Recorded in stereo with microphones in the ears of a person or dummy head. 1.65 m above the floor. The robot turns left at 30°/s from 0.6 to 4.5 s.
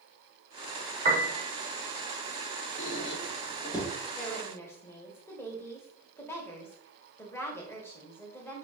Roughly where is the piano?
Right.